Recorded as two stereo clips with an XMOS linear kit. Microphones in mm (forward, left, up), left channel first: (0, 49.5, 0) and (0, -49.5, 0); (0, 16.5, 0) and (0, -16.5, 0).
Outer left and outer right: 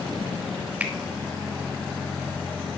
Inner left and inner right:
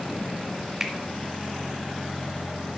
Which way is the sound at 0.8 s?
15° right (ahead or behind).